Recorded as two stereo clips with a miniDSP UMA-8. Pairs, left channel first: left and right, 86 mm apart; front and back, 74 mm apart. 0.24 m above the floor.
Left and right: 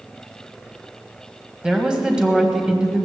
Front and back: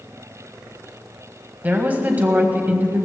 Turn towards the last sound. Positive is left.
turn(degrees=-155)